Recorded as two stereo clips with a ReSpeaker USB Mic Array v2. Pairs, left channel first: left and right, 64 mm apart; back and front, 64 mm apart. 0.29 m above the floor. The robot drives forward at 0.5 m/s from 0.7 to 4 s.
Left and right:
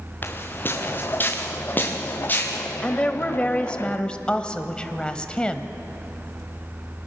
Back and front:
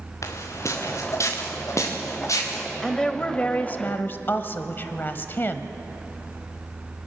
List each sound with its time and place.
0.2 s footsteps: 145° left, 2 m; by 2.6 s 150° left, 4.5 m
2.8 s a woman speaking: 110° left, 1.0 m; by 5.7 s 155° left, 1.2 m